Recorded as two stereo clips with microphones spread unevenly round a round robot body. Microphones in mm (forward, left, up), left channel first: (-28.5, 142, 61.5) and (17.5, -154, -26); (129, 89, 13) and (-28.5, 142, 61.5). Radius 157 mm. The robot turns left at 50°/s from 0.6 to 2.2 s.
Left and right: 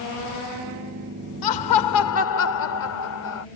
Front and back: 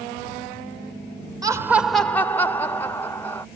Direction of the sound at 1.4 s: 85° left.